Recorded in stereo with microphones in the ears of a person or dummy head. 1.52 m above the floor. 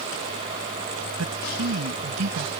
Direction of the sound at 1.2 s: 85° right.